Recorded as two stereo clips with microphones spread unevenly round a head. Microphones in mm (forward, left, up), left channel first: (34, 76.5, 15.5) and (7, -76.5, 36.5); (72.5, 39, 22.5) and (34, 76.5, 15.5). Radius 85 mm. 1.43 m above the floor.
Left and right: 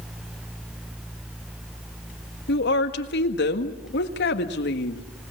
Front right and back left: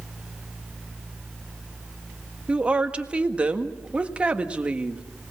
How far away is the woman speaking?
About 1.7 m.